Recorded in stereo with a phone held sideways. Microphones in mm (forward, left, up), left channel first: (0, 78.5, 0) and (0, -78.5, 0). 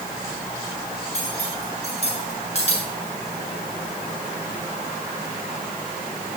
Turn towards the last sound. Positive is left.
turn(degrees=45)  # may be behind; listen again after turning